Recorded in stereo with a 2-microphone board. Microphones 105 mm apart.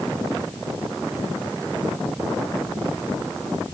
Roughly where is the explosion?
No explosion in this recording.